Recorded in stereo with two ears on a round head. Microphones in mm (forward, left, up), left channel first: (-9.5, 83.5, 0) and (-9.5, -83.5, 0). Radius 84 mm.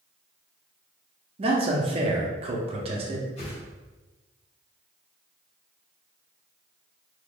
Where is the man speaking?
35° right (ahead or behind), 0.6 m.